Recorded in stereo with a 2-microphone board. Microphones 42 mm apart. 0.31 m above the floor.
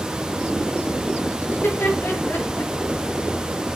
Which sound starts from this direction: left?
Laughter, at 1.5 s.